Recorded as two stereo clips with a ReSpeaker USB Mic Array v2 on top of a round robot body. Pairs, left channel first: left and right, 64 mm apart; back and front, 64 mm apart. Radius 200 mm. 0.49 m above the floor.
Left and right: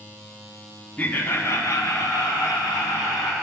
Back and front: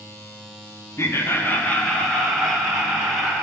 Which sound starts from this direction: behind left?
Laughter, at 1.0 s.